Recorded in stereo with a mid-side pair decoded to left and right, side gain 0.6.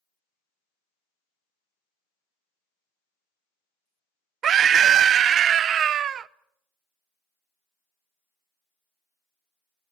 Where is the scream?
45° right, 0.9 m.